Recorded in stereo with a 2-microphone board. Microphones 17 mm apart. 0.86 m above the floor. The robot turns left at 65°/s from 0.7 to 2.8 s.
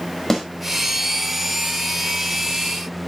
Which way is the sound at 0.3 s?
15° left (ahead or behind).